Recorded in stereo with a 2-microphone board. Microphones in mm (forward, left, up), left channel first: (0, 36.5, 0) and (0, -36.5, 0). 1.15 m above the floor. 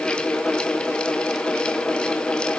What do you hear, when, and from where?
Only background noise.